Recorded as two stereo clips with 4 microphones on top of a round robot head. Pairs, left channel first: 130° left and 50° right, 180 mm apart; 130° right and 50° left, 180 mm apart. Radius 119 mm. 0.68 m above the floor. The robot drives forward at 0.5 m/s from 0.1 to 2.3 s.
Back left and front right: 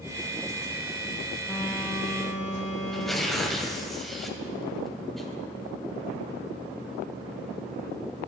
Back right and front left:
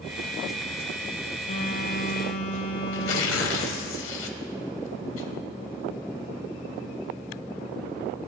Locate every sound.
1.5 s a phone buzzing: 145° right, 3.5 m; by 3.9 s 150° right, 4 m
2.9 s tearing paper: 140° right, 1.0 m